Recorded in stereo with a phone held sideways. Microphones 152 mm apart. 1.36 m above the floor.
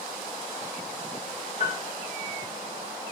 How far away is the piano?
About 1.5 m.